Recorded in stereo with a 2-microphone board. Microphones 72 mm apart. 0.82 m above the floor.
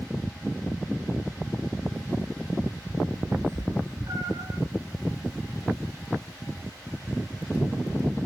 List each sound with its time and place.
3.3 s a cat meowing: 45° right (ahead or behind), 0.7 m; by 4.6 s 65° right (ahead or behind), 1.8 m